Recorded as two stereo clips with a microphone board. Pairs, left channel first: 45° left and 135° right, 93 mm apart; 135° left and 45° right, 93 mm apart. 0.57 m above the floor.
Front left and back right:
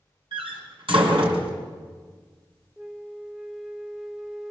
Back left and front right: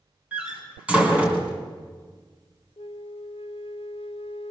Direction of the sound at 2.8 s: 140° left.